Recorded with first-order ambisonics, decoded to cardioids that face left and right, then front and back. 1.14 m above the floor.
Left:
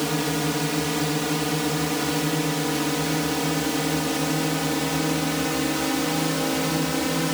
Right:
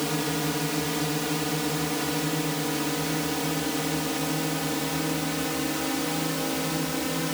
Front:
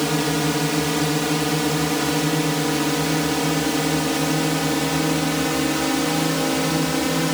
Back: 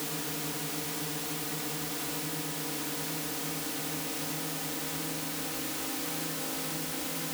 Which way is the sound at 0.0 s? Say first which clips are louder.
Left 3 dB, front 15 dB; 15° left.